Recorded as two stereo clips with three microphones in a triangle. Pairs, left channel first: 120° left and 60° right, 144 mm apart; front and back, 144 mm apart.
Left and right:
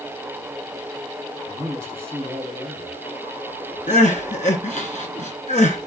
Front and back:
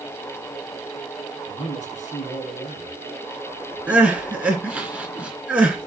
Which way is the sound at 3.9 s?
100° left.